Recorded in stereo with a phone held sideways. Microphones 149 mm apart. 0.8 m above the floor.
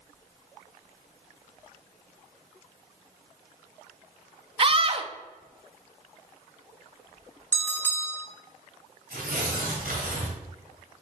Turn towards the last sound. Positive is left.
turn(degrees=-80)